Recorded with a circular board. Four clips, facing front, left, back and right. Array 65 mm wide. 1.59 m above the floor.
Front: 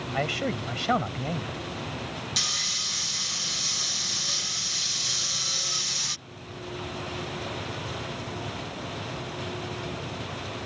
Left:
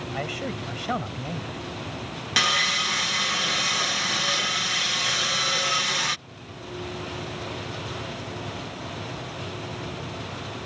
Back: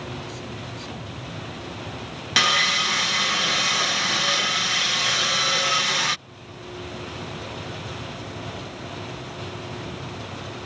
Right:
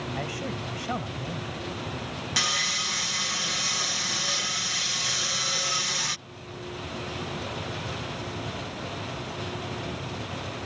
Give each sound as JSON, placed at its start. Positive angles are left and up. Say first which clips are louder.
{"t": 0.1, "sound": "a man speaking", "louder": "left 5 dB, front 6 dB", "azimuth_deg": 15}
{"t": 2.4, "sound": "sawing", "louder": "left 7 dB, back 14 dB", "azimuth_deg": 160}